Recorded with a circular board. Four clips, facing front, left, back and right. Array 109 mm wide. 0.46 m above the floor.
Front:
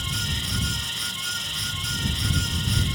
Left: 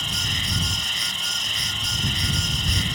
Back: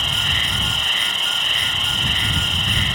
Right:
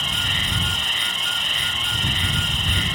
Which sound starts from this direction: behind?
An insect, at 0.0 s.